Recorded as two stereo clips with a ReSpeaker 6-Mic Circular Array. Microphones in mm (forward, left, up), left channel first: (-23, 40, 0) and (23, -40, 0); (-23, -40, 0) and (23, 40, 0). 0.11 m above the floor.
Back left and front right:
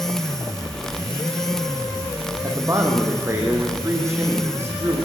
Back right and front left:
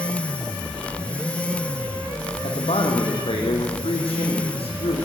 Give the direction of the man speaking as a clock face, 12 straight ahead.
4 o'clock.